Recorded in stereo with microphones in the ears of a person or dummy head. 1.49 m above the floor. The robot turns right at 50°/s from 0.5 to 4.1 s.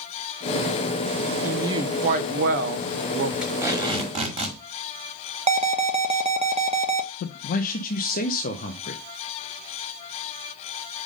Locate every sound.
1.4 s a woman speaking: 170° right, 0.7 m; by 3.3 s 75° right, 0.7 m
3.4 s tape being pulled: 175° right, 1.7 m; by 4.6 s 140° right, 1.7 m
5.5 s an alarm: 30° right (ahead or behind), 0.5 m
7.2 s a man speaking: 50° left (ahead or behind), 0.6 m